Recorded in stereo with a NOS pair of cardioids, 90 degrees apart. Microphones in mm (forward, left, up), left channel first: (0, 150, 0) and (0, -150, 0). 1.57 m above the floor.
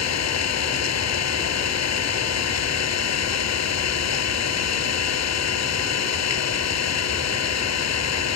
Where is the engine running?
60° left.